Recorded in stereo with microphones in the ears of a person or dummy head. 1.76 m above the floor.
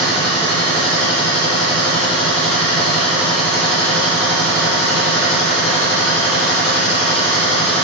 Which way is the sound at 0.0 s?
5° right (ahead or behind).